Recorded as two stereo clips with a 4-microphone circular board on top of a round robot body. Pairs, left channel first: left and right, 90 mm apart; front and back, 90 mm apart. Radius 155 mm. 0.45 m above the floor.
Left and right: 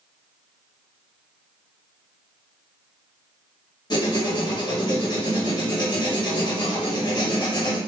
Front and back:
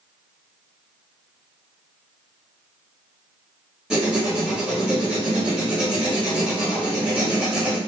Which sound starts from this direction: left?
Writing, at 3.9 s.